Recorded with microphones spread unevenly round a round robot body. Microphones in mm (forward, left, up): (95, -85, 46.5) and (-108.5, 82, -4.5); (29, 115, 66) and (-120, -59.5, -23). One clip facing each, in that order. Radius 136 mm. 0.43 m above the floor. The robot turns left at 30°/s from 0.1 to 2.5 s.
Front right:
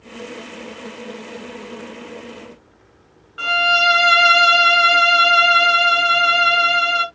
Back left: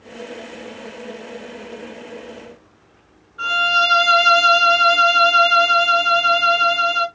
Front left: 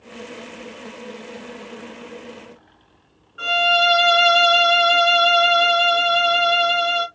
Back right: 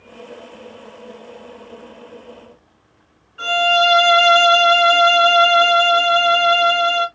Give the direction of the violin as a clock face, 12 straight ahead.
1 o'clock.